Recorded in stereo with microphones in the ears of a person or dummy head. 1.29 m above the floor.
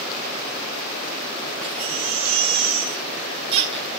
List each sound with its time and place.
1.6 s a baby crying: 35° right (ahead or behind), 1.1 m